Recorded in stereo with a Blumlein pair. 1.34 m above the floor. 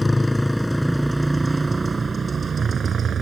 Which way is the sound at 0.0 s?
5° left.